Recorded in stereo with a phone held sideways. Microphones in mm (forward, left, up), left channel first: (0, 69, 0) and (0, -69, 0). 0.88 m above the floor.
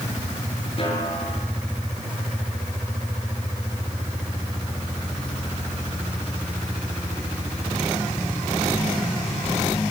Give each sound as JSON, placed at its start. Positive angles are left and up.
{"t": 0.8, "sound": "a snare drum", "side_deg": 45, "distance_m": 6.0}